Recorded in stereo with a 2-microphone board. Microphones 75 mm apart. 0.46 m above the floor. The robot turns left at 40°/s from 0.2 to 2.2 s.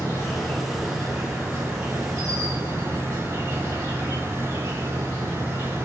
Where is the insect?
35° left, 1.2 m; by 5.9 s 45° right, 1.2 m.